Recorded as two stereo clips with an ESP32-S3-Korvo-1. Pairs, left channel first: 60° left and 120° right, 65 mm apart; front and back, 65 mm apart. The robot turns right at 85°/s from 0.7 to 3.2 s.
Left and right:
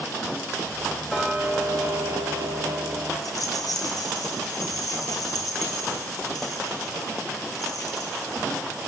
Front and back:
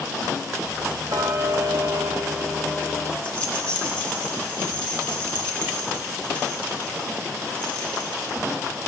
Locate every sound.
1.1 s ticking: 145° left, 1.3 m; by 3.1 s 40° right, 1.3 m
3.2 s a rattle: 70° left, 3 m